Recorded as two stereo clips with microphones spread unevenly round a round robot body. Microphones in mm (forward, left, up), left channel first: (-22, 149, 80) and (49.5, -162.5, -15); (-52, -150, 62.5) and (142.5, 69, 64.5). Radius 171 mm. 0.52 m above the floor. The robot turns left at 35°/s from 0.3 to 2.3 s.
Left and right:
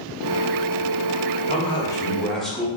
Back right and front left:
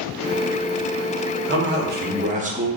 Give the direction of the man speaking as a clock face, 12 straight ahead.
11 o'clock.